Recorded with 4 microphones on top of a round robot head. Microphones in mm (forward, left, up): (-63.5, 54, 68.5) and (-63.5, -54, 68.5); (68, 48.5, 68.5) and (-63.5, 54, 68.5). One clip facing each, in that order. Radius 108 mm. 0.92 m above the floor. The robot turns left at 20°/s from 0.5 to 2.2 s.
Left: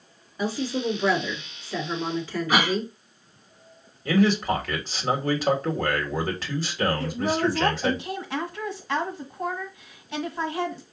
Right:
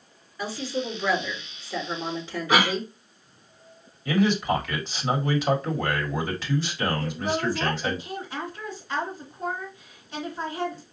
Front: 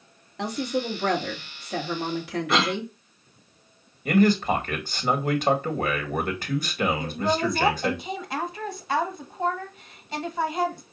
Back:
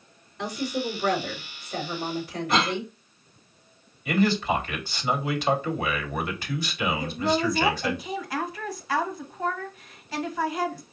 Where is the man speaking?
40° left, 1.6 m.